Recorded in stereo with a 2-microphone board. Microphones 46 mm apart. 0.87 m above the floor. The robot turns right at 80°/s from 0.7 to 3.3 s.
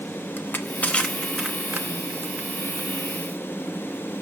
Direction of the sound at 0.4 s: 45° left (ahead or behind).